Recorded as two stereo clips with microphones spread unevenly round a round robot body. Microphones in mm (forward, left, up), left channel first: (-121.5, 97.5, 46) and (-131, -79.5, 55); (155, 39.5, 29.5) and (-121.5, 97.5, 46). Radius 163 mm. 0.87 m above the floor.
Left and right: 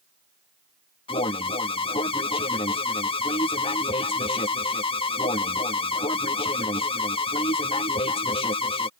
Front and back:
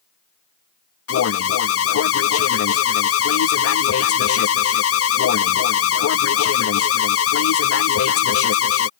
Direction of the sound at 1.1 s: 25° left.